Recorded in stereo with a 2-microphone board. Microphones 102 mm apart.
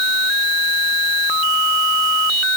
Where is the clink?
No clink in this recording.